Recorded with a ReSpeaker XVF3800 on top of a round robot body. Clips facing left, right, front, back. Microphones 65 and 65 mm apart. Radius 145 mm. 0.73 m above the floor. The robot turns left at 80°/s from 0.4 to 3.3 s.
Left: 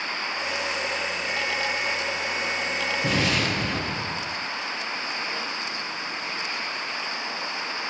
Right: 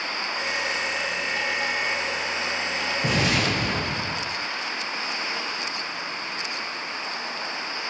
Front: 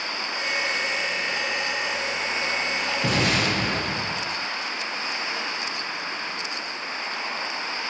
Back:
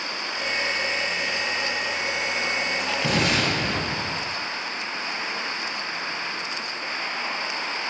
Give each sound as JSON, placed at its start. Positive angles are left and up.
{"t": 3.0, "sound": "an explosion", "azimuth_deg": -10, "distance_m": 7.0}